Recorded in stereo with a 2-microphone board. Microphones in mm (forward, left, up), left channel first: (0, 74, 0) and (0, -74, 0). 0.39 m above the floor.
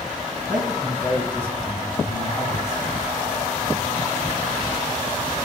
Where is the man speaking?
5° right (ahead or behind), 1.7 m; by 3.0 s 25° left (ahead or behind), 3 m.